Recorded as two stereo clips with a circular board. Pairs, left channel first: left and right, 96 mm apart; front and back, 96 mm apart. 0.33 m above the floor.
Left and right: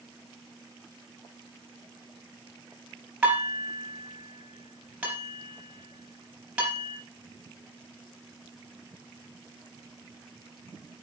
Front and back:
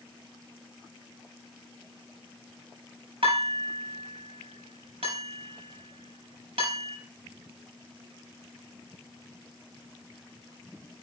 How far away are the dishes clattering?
About 4.5 m.